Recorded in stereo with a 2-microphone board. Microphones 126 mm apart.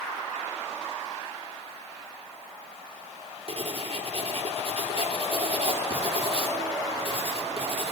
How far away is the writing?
About 3 m.